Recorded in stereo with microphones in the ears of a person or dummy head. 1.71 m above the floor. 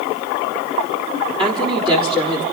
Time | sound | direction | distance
1.4 | a woman speaking | 30° right (ahead or behind) | 3.5 m